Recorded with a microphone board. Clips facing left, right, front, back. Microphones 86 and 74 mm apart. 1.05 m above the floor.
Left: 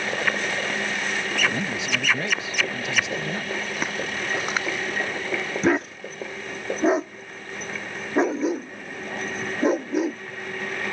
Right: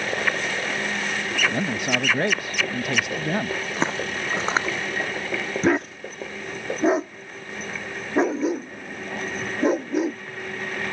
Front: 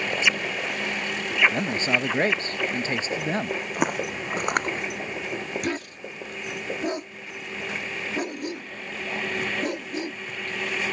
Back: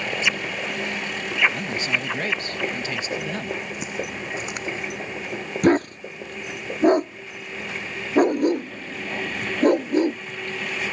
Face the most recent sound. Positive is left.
turn(degrees=180)